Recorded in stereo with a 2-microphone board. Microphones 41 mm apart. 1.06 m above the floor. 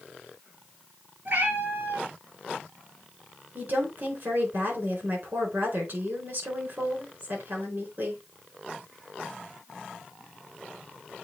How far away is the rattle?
No rattle in this recording.